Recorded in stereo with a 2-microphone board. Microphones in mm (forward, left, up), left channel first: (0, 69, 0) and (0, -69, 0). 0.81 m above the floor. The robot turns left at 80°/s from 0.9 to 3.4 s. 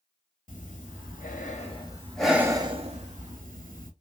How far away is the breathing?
About 0.8 m.